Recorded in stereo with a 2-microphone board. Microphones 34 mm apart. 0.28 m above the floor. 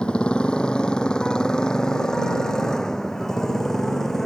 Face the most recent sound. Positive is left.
turn(degrees=10)  # may be behind; listen again after turning